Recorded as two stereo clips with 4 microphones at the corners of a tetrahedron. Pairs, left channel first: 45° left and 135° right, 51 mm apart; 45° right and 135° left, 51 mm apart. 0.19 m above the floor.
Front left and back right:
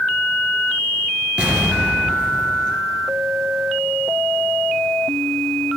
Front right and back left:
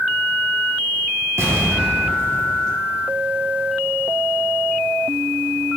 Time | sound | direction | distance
1.4 | an explosion | 160° left | 2.0 m